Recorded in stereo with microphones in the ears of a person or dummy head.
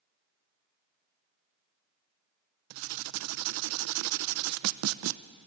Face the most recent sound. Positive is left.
turn(degrees=-70)  # may be behind; listen again after turning